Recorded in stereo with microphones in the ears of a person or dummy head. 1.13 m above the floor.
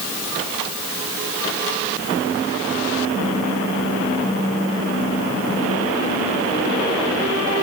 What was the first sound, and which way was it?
Only background noise.